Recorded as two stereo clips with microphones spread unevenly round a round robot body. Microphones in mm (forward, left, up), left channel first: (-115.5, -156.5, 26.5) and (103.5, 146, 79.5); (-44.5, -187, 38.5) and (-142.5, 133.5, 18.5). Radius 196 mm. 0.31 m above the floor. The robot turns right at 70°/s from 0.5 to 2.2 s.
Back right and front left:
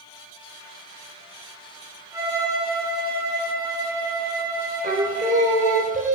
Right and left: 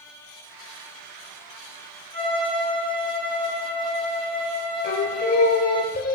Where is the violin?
50° left, 7 m; by 5.8 s 55° left, 7 m.